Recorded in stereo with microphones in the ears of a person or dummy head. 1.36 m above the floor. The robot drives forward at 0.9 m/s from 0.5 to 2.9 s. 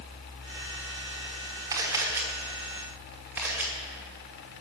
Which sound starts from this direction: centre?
A camera shutter, at 1.7 s.